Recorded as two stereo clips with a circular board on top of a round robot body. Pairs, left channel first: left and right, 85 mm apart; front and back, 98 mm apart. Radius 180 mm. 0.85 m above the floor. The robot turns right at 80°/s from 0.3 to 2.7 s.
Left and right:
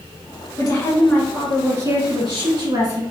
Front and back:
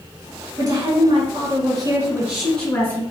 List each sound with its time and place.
0.6 s a woman speaking: 125° left, 1.8 m; by 3.0 s 65° right, 1.8 m